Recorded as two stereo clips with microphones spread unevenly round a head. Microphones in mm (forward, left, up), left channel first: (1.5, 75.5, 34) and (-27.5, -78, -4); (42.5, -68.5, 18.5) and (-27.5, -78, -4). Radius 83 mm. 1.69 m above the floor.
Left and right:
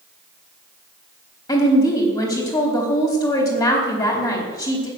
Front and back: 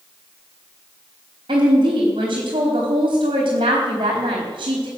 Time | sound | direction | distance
1.5 | a woman speaking | 140° left | 4 m